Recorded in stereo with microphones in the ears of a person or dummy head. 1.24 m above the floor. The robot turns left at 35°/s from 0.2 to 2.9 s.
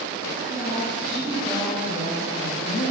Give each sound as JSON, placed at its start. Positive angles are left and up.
{"t": 0.4, "sound": "a woman speaking", "azimuth_deg": -145, "distance_m": 2.0}